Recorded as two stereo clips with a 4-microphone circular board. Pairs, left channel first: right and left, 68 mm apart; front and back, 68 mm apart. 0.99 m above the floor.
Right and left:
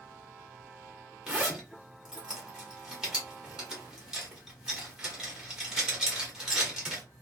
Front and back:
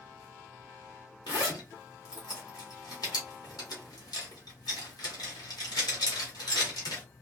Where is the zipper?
10° left, 1.4 m.